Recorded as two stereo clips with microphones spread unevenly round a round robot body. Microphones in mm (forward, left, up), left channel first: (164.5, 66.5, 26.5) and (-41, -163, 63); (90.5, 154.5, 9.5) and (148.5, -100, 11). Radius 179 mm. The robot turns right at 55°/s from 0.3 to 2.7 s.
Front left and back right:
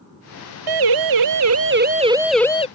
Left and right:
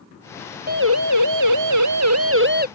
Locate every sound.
0.7 s a siren: 145° right; by 2.7 s 20° right